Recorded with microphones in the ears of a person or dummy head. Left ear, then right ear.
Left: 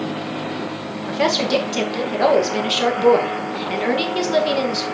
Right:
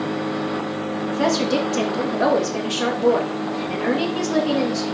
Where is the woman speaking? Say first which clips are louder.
Left 3 dB; 35° left (ahead or behind), 1.9 m.